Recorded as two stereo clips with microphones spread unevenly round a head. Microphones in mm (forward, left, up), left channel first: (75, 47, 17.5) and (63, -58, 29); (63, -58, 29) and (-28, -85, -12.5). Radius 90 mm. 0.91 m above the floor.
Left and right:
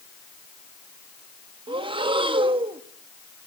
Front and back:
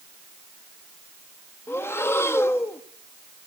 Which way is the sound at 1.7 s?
55° right.